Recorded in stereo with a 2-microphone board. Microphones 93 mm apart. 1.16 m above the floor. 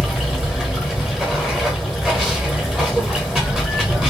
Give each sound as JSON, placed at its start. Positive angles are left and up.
{"t": 0.0, "sound": "running water", "side_deg": -5, "distance_m": 1.1}